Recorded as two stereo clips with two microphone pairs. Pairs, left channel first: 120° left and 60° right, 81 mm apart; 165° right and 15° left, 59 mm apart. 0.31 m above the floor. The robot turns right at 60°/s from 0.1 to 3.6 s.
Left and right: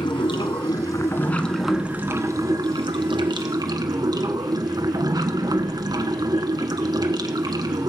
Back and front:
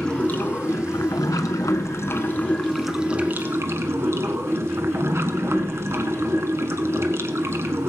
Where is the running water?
120° left, 1.2 m; by 7.9 s 30° right, 1.2 m.